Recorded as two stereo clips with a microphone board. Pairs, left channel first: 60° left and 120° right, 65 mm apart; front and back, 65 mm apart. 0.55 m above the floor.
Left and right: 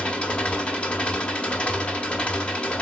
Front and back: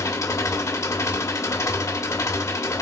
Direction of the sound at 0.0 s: 10° right.